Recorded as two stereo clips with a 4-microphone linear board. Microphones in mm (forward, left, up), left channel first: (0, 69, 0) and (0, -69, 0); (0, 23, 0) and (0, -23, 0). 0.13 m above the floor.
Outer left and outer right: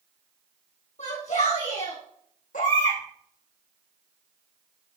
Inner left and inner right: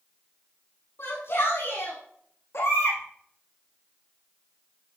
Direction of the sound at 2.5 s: 70° left (ahead or behind).